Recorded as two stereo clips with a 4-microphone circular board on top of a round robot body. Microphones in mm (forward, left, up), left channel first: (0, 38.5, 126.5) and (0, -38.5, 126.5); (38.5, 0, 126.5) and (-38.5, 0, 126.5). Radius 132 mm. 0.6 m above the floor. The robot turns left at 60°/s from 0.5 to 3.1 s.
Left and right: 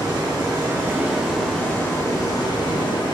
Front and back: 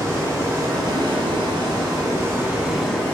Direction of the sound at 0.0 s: 130° right.